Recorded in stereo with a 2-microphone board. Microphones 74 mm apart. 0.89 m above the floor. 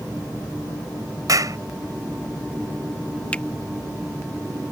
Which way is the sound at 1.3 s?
55° right (ahead or behind).